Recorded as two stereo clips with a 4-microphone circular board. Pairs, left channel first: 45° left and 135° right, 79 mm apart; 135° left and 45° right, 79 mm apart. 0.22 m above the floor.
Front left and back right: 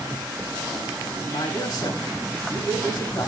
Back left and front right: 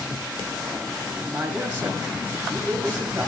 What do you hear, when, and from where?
1.3 s a man speaking: 25° left, 3.5 m